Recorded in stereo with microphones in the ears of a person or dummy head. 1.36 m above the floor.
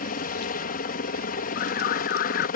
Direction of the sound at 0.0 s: 40° left (ahead or behind).